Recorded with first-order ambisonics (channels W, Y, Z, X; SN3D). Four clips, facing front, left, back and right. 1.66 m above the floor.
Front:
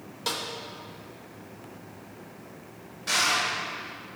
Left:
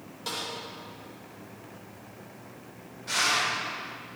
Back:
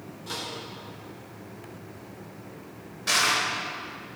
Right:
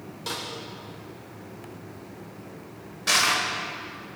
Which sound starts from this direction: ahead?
A snare drum, at 0.3 s.